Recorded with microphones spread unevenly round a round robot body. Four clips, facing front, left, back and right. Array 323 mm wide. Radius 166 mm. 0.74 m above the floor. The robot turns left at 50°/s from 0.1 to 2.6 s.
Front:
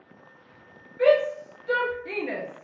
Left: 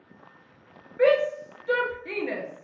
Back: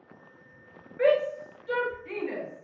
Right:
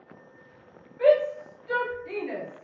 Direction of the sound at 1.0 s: 105° left.